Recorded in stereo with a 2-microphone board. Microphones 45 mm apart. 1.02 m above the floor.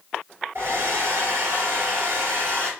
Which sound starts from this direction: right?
A hair dryer, at 0.6 s.